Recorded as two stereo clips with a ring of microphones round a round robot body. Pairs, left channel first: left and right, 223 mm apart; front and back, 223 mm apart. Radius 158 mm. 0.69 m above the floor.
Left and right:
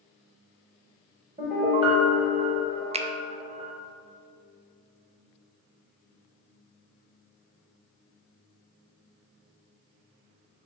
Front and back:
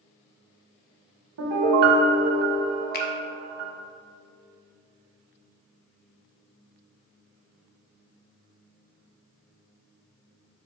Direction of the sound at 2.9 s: 35° right.